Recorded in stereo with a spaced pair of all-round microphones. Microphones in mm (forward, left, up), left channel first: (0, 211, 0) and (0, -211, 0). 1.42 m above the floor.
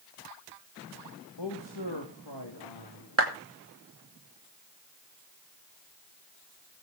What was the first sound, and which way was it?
A man speaking, 80° left.